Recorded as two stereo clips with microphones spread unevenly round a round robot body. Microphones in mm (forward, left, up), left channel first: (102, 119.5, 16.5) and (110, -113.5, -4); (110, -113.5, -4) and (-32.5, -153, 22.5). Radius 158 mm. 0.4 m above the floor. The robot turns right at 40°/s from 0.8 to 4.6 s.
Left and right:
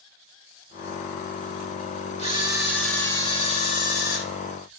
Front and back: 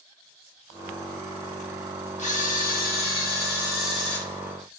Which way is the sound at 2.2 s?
25° right.